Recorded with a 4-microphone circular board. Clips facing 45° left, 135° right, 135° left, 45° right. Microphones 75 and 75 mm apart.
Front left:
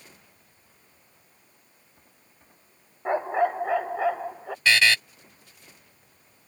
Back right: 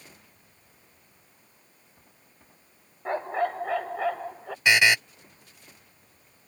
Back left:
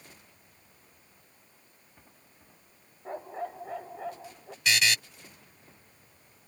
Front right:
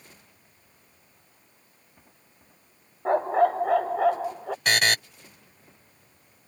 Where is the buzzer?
65° right.